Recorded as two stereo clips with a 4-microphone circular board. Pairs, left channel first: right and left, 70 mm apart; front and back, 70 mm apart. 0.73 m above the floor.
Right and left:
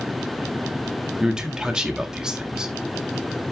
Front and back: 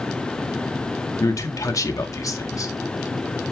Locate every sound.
1.2 s a man speaking: 15° left, 1.7 m